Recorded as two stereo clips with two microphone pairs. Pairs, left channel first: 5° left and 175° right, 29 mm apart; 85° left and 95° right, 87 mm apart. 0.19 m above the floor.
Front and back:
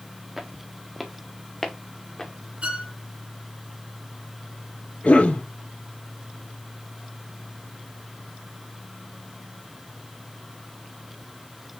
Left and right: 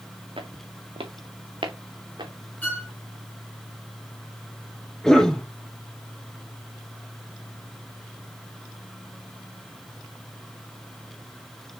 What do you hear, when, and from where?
0.4 s footsteps: 95° right, 1.9 m; by 2.3 s 65° right, 2 m
2.6 s a violin: 155° left, 2.5 m
5.0 s a cough: straight ahead, 3 m